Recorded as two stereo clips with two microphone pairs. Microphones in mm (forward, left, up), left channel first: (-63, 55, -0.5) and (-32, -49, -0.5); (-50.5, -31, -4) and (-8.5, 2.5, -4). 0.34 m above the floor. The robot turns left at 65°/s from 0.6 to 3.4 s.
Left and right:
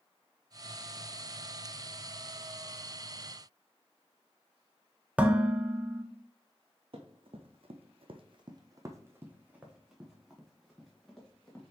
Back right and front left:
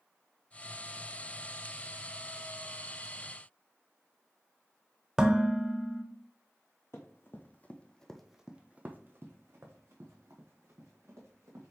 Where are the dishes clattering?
20° right, 0.6 m.